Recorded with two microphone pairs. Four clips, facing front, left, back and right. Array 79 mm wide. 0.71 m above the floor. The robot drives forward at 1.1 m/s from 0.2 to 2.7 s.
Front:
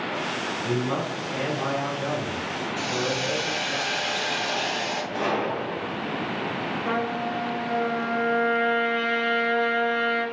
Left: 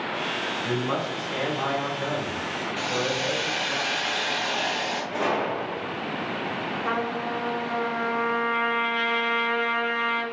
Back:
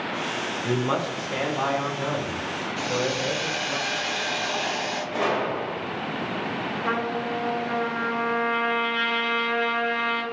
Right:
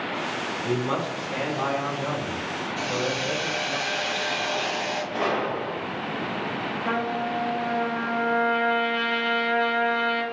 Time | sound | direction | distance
0.6 | a man speaking | 170° right | 0.5 m
2.8 | a hiss | 95° left | 1.0 m
5.1 | a gunshot | 160° left | 1.4 m
6.8 | a trumpet | 145° left | 0.9 m